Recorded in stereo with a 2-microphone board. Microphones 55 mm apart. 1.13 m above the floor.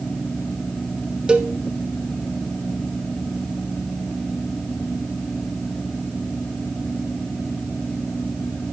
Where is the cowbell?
20° right (ahead or behind), 1.1 m.